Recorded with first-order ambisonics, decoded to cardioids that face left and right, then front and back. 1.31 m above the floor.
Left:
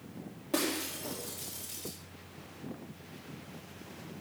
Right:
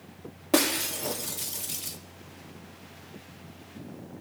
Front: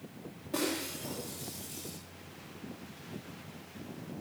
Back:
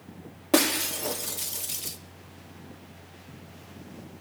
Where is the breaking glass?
145° right, 1.6 m.